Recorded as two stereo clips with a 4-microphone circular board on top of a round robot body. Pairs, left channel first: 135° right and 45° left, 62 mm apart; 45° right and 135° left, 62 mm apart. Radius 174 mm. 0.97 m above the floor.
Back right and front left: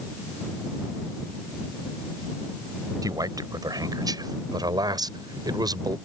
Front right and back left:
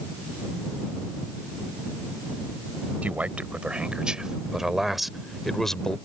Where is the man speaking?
65° left; by 6.0 s 35° left.